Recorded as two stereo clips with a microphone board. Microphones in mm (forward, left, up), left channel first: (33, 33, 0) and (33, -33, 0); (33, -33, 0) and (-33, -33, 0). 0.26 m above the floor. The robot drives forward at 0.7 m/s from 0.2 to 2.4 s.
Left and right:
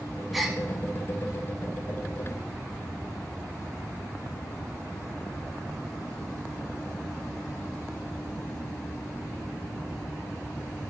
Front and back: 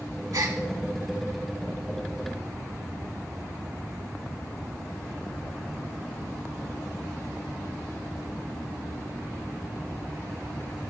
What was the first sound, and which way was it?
A gasp, straight behind.